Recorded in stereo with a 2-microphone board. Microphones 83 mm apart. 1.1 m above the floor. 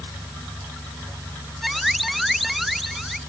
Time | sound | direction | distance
1.6 | an alarm | centre (ahead or behind) | ?